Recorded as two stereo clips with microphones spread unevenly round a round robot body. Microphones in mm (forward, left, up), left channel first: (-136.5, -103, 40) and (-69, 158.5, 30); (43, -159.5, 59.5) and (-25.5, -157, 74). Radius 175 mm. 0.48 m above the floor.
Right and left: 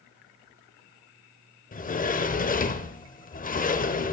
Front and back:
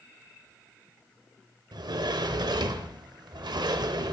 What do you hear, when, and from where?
1.7 s a sliding door: 170° right, 0.7 m